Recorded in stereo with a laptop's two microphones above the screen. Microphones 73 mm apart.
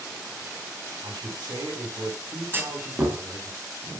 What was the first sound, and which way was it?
A man speaking, 85° right.